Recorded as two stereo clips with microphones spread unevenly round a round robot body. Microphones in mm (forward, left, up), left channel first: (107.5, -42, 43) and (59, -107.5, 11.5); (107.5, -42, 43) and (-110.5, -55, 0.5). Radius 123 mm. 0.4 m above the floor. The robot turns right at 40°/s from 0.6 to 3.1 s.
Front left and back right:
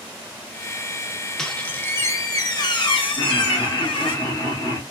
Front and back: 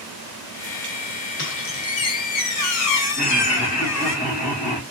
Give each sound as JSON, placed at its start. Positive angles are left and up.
{"t": 1.4, "sound": "a squeak", "azimuth_deg": -40, "distance_m": 1.0}
{"t": 3.2, "sound": "laughter", "azimuth_deg": 5, "distance_m": 1.6}